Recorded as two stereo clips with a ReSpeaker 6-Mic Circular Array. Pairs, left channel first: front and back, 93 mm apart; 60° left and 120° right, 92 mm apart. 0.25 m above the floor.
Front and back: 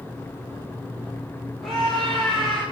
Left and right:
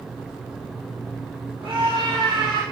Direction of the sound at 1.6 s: 90° right.